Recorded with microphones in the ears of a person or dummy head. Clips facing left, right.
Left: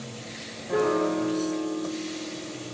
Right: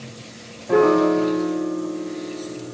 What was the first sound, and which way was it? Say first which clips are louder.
A piano: right 8 dB; 70° right (ahead or behind).